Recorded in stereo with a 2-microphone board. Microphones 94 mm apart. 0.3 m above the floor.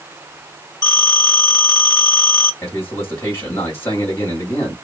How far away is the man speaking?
About 1.3 m.